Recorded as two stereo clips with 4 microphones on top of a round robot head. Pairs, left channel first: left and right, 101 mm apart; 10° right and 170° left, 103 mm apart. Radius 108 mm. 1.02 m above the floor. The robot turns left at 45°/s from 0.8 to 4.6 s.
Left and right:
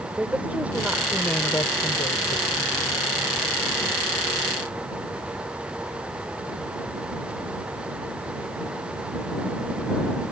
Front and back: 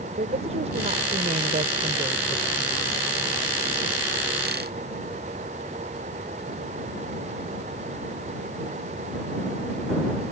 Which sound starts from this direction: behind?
A woman speaking, at 0.2 s.